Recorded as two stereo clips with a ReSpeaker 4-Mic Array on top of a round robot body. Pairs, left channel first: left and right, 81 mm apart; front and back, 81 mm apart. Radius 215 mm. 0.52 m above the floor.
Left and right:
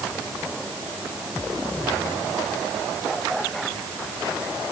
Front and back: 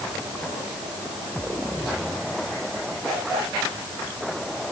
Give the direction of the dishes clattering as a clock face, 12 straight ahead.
I don't hear dishes clattering.